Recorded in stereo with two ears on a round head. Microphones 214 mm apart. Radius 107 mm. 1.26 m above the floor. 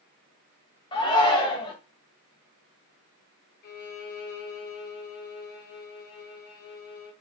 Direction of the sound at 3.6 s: 45° left (ahead or behind).